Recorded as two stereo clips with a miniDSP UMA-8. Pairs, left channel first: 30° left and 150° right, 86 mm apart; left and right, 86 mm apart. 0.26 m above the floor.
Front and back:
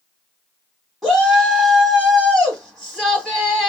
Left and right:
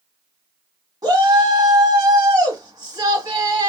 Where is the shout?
65° right, 1.6 m.